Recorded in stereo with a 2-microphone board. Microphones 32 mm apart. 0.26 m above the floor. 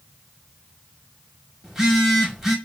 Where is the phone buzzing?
10° right (ahead or behind), 0.9 m.